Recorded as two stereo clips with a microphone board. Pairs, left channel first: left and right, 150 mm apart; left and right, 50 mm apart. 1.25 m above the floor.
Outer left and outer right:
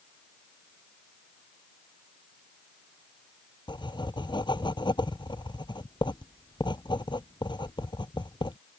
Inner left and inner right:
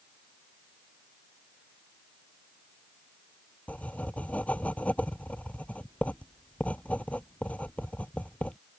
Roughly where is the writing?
Left.